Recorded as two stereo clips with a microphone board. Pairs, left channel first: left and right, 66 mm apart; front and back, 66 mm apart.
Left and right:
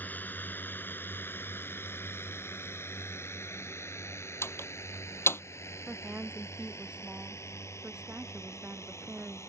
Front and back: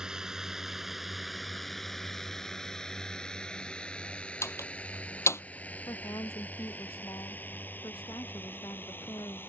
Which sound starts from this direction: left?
A drone, at 0.0 s.